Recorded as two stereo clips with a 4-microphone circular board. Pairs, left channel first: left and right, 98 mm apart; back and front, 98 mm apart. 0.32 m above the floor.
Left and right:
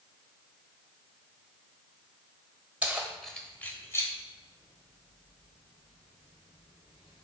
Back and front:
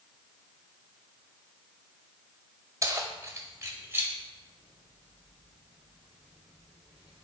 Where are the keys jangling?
25° right, 1.1 m; by 7.2 s 85° left, 3 m.